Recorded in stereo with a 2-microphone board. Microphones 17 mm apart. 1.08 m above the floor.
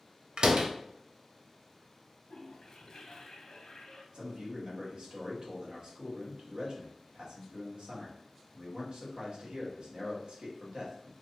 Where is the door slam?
60° right (ahead or behind), 0.6 m.